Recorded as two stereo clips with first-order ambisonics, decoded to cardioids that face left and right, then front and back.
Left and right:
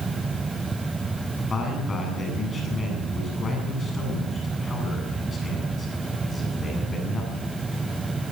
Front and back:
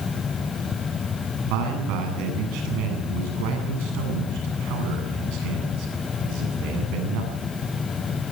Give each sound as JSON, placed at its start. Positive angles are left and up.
{"t": 1.4, "sound": "a man speaking", "azimuth_deg": 160, "distance_m": 8.5}